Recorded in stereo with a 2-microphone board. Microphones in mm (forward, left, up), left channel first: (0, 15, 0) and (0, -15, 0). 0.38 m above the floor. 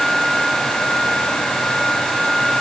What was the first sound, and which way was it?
Only background noise.